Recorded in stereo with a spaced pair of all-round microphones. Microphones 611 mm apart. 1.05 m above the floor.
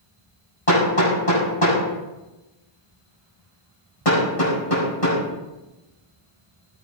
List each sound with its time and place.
0.7 s hammering: 60° left (ahead or behind), 7.5 m